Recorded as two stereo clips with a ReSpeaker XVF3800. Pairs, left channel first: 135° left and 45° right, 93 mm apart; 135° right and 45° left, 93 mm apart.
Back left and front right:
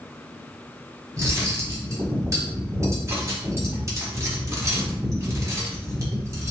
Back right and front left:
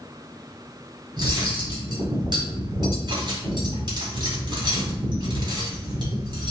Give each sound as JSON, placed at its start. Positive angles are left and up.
{"t": 1.2, "sound": "cutlery clinking", "azimuth_deg": 10, "distance_m": 1.9}